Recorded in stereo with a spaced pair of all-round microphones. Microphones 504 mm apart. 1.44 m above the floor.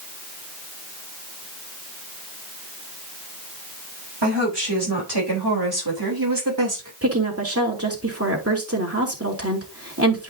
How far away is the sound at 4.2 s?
About 4 m.